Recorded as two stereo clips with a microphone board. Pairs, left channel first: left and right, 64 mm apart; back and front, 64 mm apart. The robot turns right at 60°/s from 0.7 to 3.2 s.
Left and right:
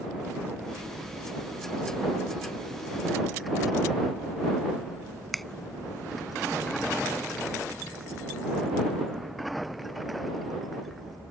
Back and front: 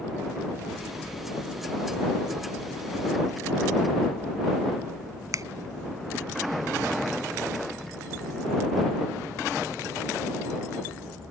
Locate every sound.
5.3 s a finger snap: straight ahead